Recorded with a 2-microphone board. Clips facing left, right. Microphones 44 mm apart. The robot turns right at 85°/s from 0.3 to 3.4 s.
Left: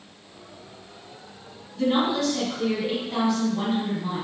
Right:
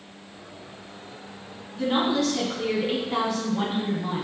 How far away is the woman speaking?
About 1.0 m.